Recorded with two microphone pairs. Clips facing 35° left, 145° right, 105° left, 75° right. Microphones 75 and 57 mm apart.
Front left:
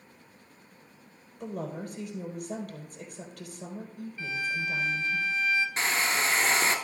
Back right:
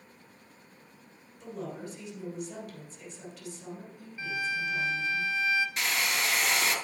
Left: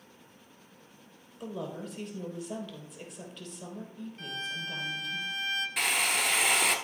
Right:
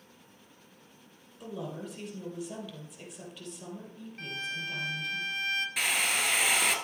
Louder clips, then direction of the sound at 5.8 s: Front left 3 dB, left 2 dB; 10° left.